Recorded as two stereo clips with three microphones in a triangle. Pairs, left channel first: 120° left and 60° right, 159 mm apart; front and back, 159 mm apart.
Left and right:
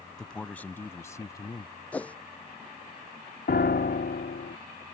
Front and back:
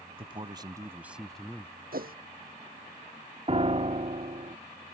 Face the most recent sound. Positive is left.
turn(degrees=130)